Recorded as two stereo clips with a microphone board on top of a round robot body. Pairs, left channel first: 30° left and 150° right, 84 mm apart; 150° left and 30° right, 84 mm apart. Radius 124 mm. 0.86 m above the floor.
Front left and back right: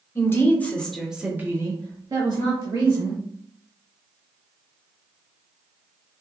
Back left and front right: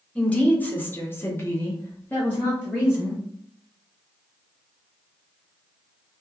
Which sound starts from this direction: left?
A woman speaking, at 0.1 s.